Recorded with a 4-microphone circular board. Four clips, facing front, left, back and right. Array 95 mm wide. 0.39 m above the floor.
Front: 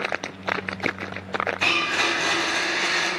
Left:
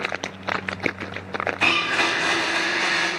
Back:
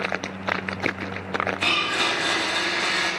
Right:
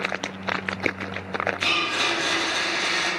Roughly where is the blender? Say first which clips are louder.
Left 3 dB, even; left.